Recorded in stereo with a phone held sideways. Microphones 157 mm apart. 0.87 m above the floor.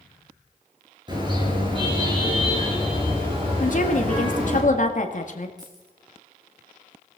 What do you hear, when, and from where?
1.1 s a car horn: 30° right (ahead or behind), 7.5 m; by 4.6 s 45° right (ahead or behind), 9 m
3.6 s a woman speaking: 55° left (ahead or behind), 1.8 m
5.6 s keys jangling: 25° right (ahead or behind), 7 m